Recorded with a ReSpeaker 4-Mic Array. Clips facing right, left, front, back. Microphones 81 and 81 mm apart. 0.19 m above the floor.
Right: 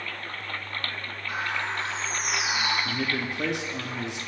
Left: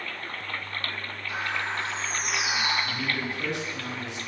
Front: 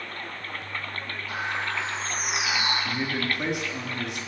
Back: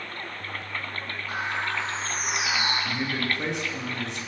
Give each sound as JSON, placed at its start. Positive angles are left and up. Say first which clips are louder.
{"t": 1.3, "sound": "a bird", "louder": "right 1 dB, back 1 dB", "azimuth_deg": -125, "distance_m": 6.0}
{"t": 2.9, "sound": "a man speaking", "louder": "right 1 dB, even", "azimuth_deg": -85, "distance_m": 2.5}